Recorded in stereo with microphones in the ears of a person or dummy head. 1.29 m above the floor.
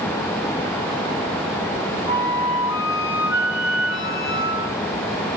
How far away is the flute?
About 2 m.